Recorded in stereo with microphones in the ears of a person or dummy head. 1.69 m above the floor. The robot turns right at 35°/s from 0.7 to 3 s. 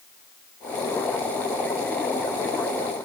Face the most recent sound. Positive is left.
No sound to turn to.